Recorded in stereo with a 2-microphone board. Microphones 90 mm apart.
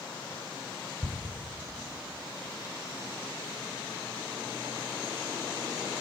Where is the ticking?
35° right (ahead or behind), 1.9 m.